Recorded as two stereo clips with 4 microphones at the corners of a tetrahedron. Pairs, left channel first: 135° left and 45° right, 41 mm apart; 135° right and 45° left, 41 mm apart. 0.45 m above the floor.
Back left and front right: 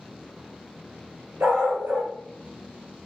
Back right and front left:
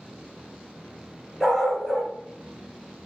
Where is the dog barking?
55° right, 2.5 m.